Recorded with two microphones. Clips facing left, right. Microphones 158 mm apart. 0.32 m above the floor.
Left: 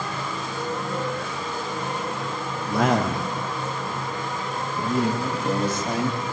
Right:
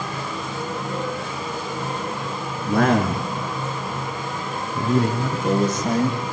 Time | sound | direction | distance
2.7 | a man speaking | 60° right (ahead or behind) | 4 m